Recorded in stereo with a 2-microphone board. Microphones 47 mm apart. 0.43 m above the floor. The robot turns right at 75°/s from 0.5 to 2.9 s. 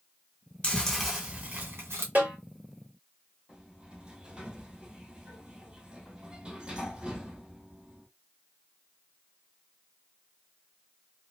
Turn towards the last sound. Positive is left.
turn(degrees=-15)  # may be behind; listen again after turning